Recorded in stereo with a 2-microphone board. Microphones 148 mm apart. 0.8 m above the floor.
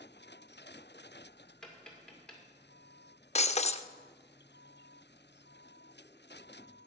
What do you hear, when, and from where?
1.6 s tapping: 5° left (ahead or behind), 2 m
3.4 s breaking glass: 45° left (ahead or behind), 0.5 m